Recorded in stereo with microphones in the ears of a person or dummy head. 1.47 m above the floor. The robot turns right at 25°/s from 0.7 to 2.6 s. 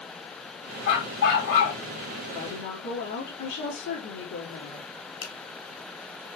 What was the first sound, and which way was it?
A dog barking, 55° left (ahead or behind).